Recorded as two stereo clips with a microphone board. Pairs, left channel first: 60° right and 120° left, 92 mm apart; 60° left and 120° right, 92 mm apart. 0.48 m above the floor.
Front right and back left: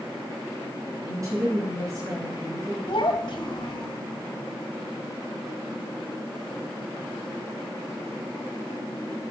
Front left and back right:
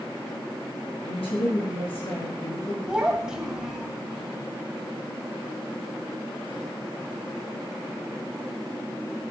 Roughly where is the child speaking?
Ahead right.